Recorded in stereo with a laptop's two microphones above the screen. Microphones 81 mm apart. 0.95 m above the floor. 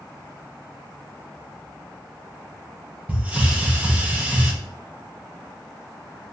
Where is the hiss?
20° right (ahead or behind), 0.6 m.